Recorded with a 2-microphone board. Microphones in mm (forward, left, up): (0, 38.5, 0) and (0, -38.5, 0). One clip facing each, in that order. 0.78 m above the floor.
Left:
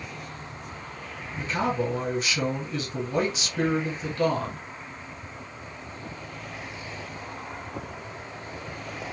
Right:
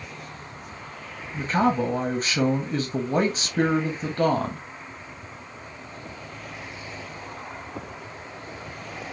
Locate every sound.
1.3 s a man speaking: 40° right (ahead or behind), 1.1 m